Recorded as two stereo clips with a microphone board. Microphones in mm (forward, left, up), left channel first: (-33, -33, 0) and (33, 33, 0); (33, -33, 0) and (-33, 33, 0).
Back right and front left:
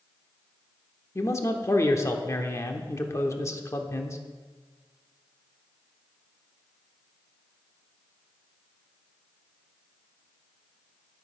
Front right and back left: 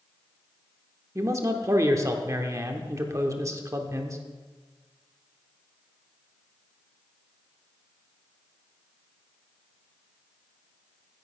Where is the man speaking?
Straight behind, 1.0 m.